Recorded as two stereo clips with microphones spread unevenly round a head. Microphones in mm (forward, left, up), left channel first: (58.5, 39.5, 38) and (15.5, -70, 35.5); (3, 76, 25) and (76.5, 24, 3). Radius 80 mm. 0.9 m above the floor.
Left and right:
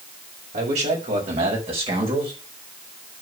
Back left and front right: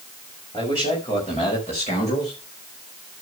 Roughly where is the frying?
I don't hear frying.